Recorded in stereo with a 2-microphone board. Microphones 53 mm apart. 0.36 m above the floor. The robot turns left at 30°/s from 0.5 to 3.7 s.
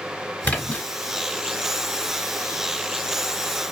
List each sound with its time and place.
0.4 s a splash: 30° left (ahead or behind), 1.2 m; by 0.8 s 20° left (ahead or behind), 1.2 m